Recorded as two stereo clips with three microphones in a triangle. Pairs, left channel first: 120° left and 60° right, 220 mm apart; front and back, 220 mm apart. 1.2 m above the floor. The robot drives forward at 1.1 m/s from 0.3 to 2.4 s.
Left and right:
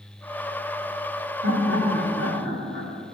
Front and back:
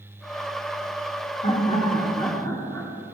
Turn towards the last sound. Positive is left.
turn(degrees=-80)